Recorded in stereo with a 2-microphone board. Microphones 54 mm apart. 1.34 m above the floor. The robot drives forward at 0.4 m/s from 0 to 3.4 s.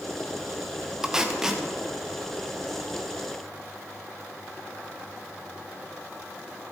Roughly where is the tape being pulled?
Centre.